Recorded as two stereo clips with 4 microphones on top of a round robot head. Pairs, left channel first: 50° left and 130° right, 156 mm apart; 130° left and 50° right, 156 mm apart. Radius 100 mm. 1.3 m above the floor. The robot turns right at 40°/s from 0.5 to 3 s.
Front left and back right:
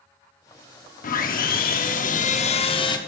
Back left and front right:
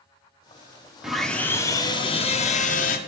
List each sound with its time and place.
1.0 s sawing: 35° left, 1.1 m; by 3.0 s 110° left, 1.1 m